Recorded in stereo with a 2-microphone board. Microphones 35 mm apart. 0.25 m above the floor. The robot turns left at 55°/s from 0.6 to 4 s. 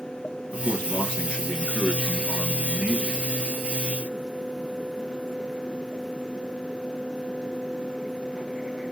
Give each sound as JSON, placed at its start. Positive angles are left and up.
{"t": 0.5, "sound": "a man speaking", "azimuth_deg": 65, "distance_m": 3.0}